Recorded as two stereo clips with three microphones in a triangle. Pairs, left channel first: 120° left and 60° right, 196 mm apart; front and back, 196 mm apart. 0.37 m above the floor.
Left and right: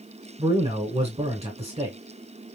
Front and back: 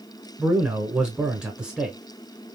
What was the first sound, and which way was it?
A man speaking, 95° right.